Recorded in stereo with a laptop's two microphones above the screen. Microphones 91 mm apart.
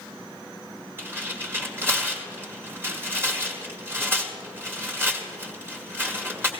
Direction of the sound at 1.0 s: 25° right (ahead or behind).